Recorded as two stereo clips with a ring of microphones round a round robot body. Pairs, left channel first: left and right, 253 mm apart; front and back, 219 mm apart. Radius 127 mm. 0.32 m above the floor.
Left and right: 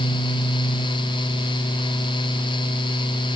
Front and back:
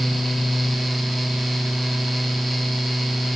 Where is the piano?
I don't hear a piano.